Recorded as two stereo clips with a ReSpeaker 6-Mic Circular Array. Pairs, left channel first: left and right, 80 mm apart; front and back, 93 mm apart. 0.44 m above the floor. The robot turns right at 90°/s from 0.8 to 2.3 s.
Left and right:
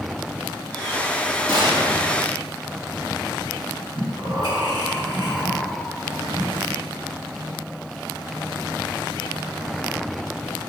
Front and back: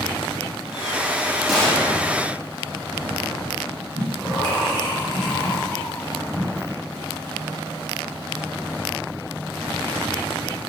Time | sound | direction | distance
1.5 | a gunshot | 90° right | 0.9 m
4.0 | breathing | 85° right | 1.7 m